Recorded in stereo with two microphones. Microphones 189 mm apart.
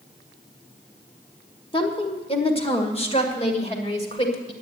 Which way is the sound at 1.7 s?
25° left (ahead or behind).